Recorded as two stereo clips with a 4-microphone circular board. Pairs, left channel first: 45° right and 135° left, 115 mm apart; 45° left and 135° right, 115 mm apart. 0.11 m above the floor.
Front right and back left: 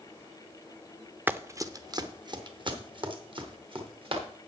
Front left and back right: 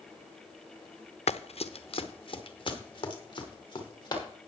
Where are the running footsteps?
60° left, 0.8 m; by 4.2 s 95° left, 4 m.